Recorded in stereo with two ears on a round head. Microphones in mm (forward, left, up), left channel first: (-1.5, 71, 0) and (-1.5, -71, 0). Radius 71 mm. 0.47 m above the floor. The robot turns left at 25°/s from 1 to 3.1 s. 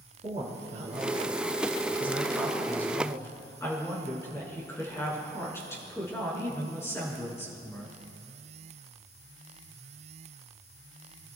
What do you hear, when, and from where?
0.2 s a woman speaking: 145° right, 5.5 m; by 8.0 s 165° left, 5.5 m